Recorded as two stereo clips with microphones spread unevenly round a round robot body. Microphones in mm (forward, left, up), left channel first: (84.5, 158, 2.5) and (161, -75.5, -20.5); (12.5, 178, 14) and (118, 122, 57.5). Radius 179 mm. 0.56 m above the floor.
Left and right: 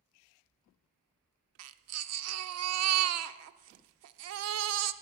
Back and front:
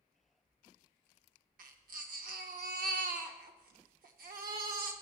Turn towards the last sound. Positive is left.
turn(degrees=-55)